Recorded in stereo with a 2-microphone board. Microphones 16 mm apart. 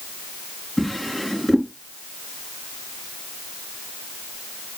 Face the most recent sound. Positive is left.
turn(degrees=15)  # may be behind; listen again after turning